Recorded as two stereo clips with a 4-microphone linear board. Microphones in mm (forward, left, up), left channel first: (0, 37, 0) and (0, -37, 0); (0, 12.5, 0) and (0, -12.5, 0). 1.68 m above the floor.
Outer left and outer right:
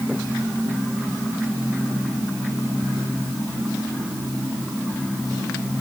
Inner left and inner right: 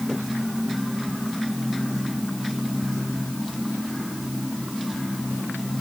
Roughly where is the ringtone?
I don't hear a ringtone.